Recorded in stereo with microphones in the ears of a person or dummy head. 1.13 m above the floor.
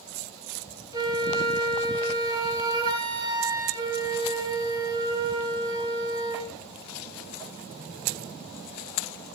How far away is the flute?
About 3 m.